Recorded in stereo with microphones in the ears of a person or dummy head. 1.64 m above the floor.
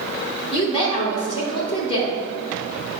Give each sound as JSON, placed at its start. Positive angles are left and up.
{"t": 0.5, "sound": "a woman speaking", "side_deg": 35, "distance_m": 1.9}